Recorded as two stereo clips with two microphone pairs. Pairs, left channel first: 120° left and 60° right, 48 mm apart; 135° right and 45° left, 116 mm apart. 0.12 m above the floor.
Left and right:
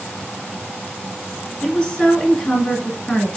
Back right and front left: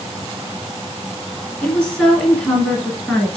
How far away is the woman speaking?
About 1.4 m.